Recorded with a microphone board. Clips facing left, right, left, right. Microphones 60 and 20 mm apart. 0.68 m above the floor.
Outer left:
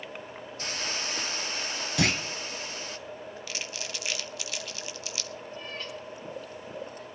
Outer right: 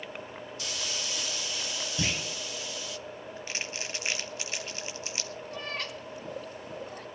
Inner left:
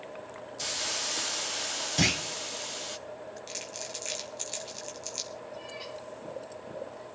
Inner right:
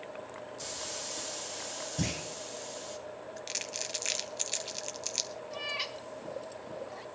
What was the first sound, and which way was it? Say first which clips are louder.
A hiss: outer left 4 dB, inner left 9 dB; 40° left (ahead or behind).